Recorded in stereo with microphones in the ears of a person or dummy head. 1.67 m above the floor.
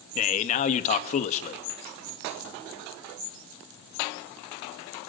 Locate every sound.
0.1 s a man speaking: 45° left (ahead or behind), 2 m